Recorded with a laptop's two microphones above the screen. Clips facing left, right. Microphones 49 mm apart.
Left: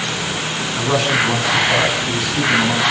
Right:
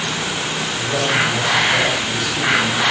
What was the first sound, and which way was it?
A man speaking, 85° left.